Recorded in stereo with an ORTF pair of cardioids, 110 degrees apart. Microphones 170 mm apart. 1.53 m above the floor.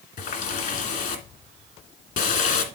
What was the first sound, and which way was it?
A running tap, 65° left.